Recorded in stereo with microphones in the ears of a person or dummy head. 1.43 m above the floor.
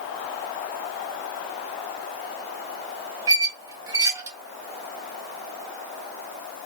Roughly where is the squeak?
Centre.